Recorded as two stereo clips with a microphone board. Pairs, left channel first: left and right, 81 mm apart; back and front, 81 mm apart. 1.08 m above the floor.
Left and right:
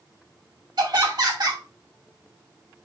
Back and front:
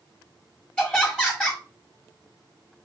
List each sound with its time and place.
0.8 s laughter: 105° right, 1.3 m